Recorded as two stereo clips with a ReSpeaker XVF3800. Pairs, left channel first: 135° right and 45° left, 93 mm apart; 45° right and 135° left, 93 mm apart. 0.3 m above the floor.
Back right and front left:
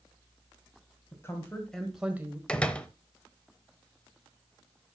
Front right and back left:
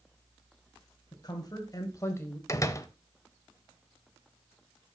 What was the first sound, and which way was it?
A woman speaking, 80° right.